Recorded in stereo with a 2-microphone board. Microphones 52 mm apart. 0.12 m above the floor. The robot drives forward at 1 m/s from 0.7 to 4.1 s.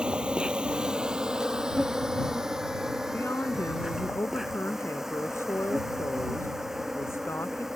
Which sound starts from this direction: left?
A woman speaking, at 3.1 s.